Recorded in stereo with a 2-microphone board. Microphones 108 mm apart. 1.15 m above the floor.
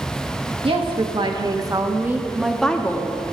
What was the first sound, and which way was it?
A woman speaking, 55° right (ahead or behind).